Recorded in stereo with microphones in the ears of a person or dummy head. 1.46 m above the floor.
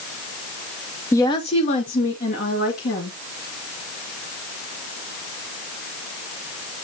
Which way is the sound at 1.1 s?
15° left (ahead or behind).